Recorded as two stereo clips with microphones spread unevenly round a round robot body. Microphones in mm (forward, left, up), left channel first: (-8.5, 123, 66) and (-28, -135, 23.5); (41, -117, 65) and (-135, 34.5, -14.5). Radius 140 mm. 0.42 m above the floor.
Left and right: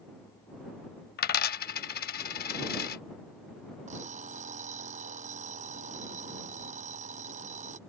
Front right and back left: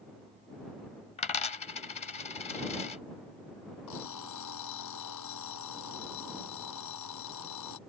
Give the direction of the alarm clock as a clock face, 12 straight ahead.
1 o'clock.